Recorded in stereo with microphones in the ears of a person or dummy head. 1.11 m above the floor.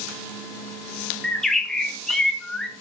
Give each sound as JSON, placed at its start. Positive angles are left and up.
{"t": 1.2, "sound": "a bird", "side_deg": 0, "distance_m": 1.1}